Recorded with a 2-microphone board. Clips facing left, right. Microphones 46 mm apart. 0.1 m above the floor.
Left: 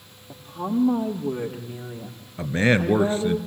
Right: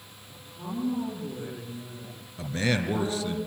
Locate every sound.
0.3 s a woman speaking: 75° left (ahead or behind), 5.5 m; by 3.4 s 70° left (ahead or behind), 6.5 m
2.4 s a man speaking: 35° left (ahead or behind), 1.4 m